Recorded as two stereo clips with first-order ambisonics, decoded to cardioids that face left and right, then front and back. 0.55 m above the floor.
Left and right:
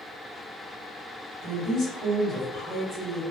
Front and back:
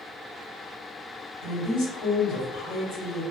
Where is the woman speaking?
Straight ahead, 1.4 m.